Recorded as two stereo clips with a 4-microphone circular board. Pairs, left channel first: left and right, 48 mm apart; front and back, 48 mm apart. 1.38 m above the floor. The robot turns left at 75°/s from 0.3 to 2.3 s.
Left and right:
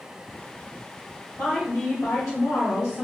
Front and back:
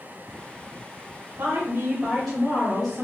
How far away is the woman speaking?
About 1.1 m.